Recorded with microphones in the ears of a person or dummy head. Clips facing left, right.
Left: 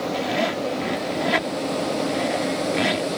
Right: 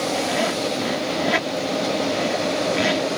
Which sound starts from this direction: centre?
A zipper, at 0.1 s.